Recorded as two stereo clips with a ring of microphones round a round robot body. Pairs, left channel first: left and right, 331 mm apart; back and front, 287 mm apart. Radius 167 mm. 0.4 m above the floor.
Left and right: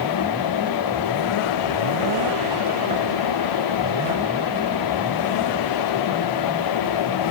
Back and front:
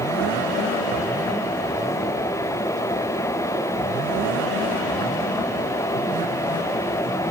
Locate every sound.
Only background noise.